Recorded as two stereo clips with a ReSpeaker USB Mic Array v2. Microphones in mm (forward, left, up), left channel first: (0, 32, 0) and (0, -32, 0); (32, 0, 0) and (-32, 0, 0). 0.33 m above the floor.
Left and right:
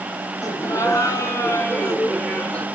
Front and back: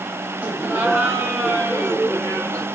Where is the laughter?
125° left, 4 m; by 2.6 s 165° left, 2.5 m.